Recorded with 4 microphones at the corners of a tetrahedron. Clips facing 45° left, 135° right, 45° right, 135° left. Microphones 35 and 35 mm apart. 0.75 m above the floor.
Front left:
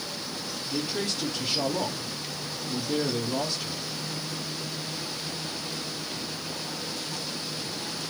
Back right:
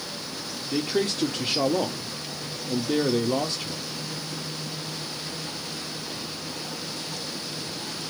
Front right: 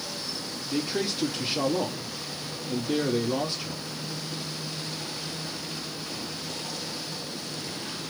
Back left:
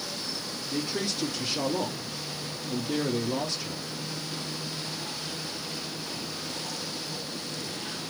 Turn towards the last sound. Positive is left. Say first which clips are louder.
# back right 6 dB, front right 3 dB
turn(degrees=-110)